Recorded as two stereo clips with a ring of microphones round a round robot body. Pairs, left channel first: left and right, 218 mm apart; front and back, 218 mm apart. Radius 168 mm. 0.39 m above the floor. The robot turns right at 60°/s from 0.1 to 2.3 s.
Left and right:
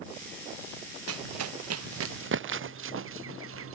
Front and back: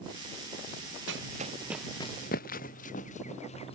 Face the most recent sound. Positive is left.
turn(degrees=-70)